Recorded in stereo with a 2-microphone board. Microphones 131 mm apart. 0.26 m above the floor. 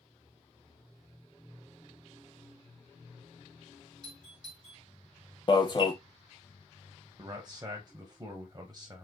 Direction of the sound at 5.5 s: 35° left (ahead or behind).